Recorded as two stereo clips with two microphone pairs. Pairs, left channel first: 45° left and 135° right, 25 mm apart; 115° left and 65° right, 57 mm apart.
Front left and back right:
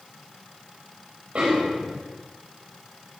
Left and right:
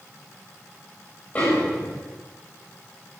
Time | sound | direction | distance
1.4 | a snare drum | 175° left | 8 m